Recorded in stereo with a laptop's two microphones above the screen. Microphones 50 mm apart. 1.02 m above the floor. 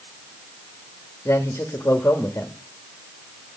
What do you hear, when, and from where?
1.2 s a man speaking: 70° left (ahead or behind), 1.8 m